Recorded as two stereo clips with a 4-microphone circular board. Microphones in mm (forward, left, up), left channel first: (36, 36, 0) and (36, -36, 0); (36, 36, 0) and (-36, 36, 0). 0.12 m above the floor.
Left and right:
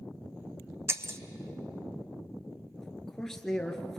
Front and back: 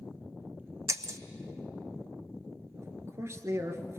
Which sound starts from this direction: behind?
A man speaking, at 2.8 s.